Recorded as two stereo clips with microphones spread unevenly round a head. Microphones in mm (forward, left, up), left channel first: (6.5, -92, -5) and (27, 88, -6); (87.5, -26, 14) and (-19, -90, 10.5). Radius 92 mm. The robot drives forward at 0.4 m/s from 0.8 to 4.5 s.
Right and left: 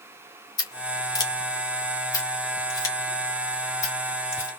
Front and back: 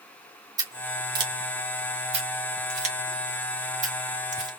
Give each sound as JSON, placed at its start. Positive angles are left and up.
{"t": 0.6, "sound": "scissors", "azimuth_deg": -135, "distance_m": 1.2}